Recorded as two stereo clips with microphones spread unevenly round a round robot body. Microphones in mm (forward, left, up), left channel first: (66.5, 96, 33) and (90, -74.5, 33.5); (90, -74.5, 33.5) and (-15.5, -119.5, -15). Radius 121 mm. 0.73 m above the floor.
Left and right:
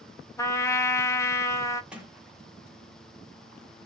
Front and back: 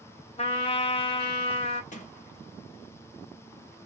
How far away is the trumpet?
About 0.5 m.